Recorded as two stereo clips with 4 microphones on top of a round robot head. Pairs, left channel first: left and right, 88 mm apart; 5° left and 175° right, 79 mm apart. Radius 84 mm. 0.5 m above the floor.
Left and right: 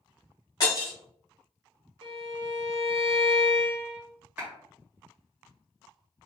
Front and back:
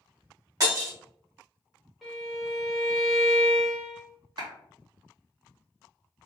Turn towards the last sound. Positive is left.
turn(degrees=-165)